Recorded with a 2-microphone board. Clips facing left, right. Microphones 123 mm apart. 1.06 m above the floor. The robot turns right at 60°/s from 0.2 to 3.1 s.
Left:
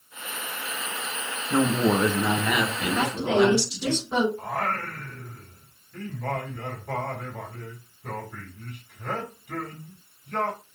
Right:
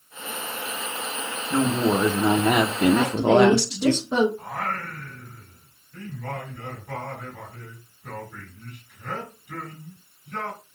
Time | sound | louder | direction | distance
1.5 | a woman speaking | even | 160° left | 0.7 m
2.9 | a woman speaking | right 3 dB | 20° right (ahead or behind) | 1.7 m
4.4 | singing | left 2 dB | 60° left (ahead or behind) | 2.5 m